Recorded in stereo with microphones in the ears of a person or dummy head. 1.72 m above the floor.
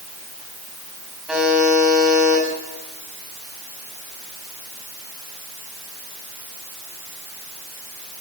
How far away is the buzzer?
About 8 m.